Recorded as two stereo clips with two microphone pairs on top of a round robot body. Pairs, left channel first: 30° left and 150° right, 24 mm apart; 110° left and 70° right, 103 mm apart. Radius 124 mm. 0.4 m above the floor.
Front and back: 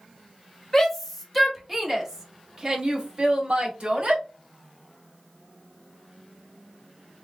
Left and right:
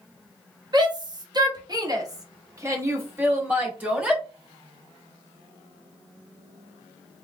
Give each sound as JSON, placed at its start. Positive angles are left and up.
{"t": 0.7, "sound": "a shout", "azimuth_deg": -45, "distance_m": 1.9}